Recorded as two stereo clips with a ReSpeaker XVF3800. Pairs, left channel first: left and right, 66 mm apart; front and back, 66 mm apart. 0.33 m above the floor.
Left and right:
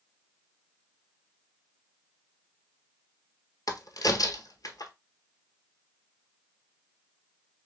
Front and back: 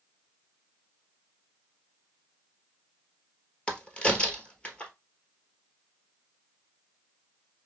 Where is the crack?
70° left, 1.0 m.